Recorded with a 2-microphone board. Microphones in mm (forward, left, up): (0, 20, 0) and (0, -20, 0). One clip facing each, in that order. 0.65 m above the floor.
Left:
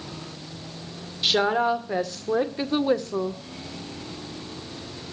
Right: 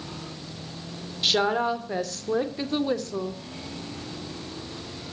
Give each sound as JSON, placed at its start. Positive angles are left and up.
{"t": 1.2, "sound": "a woman speaking", "side_deg": 10, "distance_m": 2.5}